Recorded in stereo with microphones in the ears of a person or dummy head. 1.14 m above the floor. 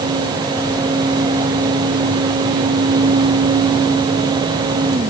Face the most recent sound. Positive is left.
No sound to turn to.